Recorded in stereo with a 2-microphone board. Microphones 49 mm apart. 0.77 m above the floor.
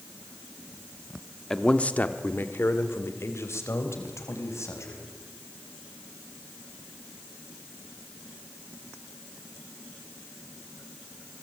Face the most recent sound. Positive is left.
turn(degrees=80)